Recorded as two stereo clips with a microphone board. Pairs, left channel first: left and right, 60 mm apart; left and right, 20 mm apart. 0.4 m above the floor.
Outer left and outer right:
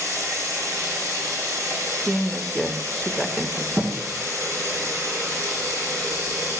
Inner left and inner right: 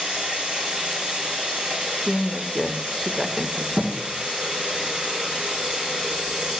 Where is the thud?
30° right (ahead or behind), 2.0 m.